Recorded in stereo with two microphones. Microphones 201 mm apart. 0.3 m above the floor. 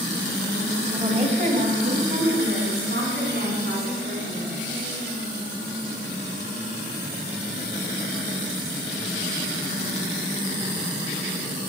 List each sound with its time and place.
0.9 s a woman speaking: 25° right (ahead or behind), 1.0 m; by 4.6 s 65° right (ahead or behind), 3 m